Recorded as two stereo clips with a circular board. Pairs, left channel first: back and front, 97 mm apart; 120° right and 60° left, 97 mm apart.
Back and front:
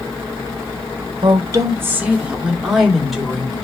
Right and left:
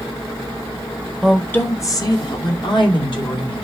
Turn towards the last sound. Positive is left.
turn(degrees=-90)